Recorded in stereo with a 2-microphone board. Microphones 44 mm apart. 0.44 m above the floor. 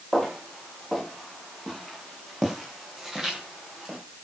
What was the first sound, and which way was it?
Footsteps, centre (ahead or behind).